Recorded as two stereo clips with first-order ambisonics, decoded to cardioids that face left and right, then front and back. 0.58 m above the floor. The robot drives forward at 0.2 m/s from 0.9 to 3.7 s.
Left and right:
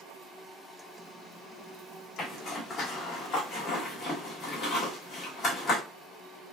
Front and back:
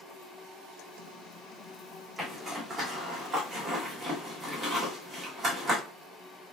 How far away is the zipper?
About 1.4 m.